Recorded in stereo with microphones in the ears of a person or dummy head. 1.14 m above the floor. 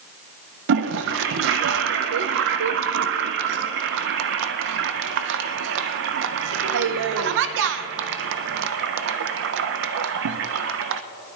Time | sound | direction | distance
0.7 | a toilet flushing | 65° right (ahead or behind) | 0.6 m